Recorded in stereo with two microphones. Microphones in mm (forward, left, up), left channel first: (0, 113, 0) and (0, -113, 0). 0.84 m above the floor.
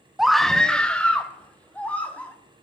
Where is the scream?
Centre (ahead or behind), 0.5 m; by 2.3 s 5° left (ahead or behind), 3 m.